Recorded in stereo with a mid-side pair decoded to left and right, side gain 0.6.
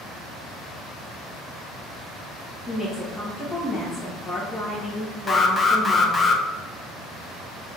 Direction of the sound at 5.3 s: 25° left.